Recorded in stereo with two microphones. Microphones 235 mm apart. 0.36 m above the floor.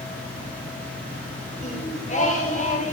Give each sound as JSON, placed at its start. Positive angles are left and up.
{"t": 1.6, "sound": "singing", "side_deg": 30, "distance_m": 8.5}